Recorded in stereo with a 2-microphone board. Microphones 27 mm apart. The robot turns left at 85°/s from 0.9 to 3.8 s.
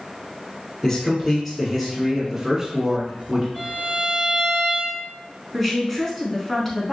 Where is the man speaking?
20° left (ahead or behind), 1.3 m; by 3.5 s 10° right (ahead or behind), 1.3 m.